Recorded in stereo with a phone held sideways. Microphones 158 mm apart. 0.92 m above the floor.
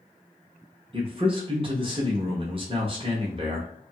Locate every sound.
0.9 s a man speaking: 35° right (ahead or behind), 0.7 m